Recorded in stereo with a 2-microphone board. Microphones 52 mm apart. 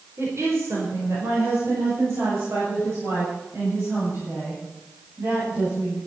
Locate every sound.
0.2 s a woman speaking: 60° right (ahead or behind), 4.5 m; by 6.0 s 50° right (ahead or behind), 9 m